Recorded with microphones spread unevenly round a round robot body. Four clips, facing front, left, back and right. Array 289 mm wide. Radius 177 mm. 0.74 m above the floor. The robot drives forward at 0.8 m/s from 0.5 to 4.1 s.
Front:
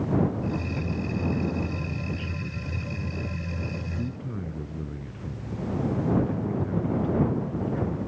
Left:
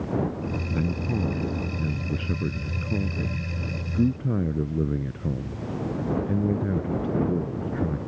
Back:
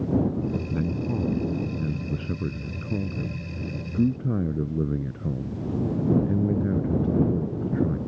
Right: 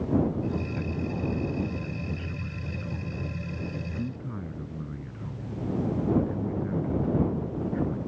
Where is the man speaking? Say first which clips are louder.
Left 4 dB, back 3 dB; 140° left; by 8.0 s 150° left.